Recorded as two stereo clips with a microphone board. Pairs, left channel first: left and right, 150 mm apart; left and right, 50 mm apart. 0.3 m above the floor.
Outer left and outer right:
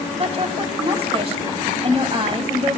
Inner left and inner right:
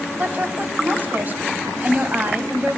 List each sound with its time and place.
0.2 s a woman speaking: 40° right (ahead or behind), 2 m